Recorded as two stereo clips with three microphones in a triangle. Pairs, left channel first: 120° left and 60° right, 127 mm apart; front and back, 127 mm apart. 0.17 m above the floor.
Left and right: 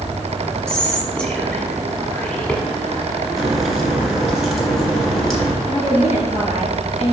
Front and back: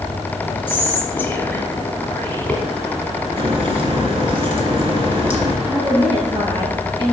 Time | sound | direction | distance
0.7 | whispering | 50° left | 1.2 m
3.4 | a crack | 150° right | 1.6 m
5.6 | a woman speaking | 135° left | 3 m